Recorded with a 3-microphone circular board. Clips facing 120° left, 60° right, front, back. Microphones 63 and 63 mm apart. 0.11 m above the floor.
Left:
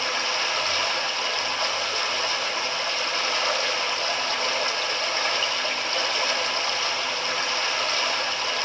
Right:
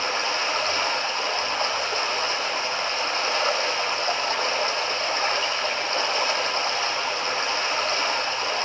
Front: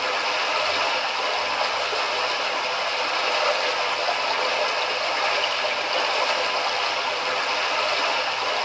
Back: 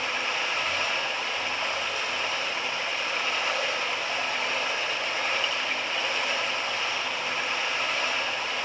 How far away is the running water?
About 3.5 m.